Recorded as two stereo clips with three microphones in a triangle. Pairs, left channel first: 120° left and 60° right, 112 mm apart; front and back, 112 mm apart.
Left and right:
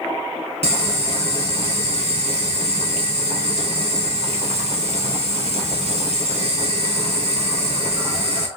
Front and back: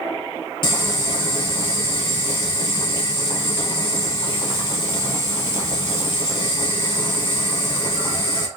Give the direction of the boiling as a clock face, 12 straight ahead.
1 o'clock.